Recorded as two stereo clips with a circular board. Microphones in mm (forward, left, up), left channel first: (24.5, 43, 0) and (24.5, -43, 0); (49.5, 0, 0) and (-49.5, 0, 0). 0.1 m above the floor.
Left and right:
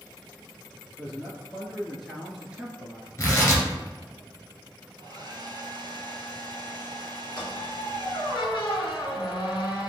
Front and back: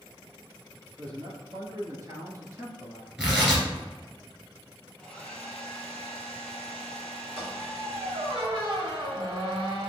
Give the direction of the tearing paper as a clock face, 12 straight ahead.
8 o'clock.